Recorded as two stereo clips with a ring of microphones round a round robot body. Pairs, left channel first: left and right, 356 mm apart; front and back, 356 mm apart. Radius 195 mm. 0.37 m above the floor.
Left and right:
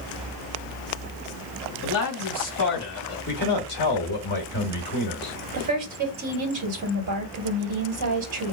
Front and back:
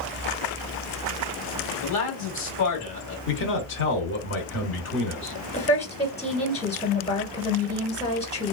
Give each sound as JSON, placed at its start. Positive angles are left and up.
{"t": 1.8, "sound": "a man speaking", "azimuth_deg": 40, "distance_m": 2.5}
{"t": 3.3, "sound": "a man speaking", "azimuth_deg": 40, "distance_m": 1.2}
{"t": 5.5, "sound": "a woman speaking", "azimuth_deg": -65, "distance_m": 1.8}